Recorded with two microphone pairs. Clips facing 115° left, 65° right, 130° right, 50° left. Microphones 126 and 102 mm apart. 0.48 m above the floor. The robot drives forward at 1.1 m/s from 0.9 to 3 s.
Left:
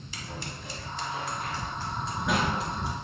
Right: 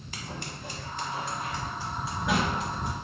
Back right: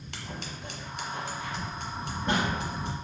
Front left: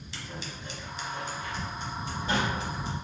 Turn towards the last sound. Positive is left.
turn(degrees=-160)